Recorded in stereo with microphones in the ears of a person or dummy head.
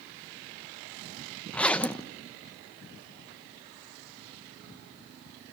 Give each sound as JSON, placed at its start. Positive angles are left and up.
{"t": 1.5, "sound": "a zipper", "side_deg": 10, "distance_m": 0.7}